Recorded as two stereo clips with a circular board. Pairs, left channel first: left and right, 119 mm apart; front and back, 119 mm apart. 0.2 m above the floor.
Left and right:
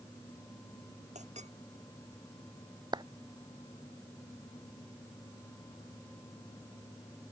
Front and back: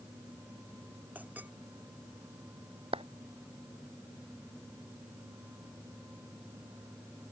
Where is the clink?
105° right.